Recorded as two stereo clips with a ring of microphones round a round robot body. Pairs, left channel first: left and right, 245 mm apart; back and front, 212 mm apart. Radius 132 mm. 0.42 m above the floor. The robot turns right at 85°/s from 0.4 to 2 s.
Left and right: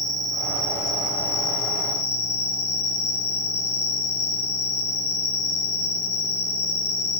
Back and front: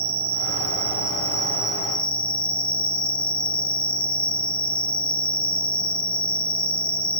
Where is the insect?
20° right, 1.1 m; by 7.2 s 115° left, 1.1 m.